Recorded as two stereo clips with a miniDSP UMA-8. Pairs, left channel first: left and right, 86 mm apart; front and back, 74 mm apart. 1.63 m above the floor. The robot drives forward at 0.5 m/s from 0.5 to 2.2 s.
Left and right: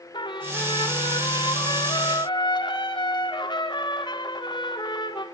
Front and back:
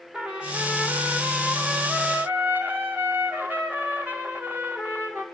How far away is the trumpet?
About 4 m.